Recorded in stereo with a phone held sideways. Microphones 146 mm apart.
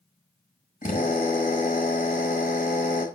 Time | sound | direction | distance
0.8 | a drill | 65° left (ahead or behind) | 5 m